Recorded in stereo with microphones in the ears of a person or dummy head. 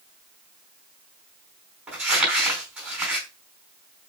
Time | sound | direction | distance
1.9 | crumpling | 5° right (ahead or behind) | 5 m